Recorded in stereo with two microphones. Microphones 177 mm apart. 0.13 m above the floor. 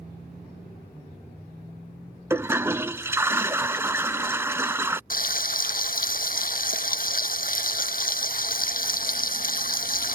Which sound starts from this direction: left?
Frying, at 5.1 s.